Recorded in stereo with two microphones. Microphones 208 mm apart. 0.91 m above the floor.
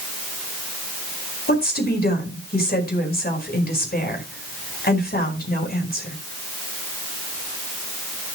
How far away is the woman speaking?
About 4.5 m.